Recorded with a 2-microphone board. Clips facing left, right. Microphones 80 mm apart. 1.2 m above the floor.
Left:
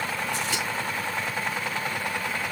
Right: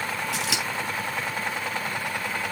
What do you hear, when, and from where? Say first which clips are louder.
0.3 s scissors: even; 75° right (ahead or behind), 5 m